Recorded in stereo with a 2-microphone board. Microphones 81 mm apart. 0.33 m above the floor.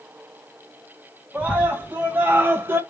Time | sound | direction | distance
1.3 | a scream | 15° right (ahead or behind) | 2 m